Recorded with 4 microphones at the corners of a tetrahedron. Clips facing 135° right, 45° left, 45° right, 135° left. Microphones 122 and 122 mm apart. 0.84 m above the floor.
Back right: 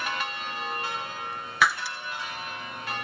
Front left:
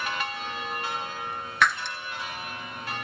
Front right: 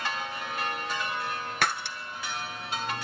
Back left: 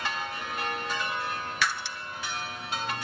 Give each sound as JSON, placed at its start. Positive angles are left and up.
{"t": 1.6, "sound": "breaking glass", "azimuth_deg": -50, "distance_m": 1.1}